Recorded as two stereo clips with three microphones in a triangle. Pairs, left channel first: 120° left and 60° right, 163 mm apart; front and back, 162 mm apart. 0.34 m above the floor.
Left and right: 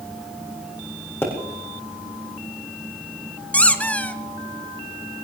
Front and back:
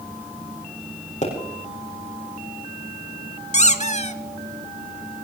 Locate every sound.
1.2 s a pop: 45° left, 6.5 m
3.5 s a squeak: 40° left, 1.0 m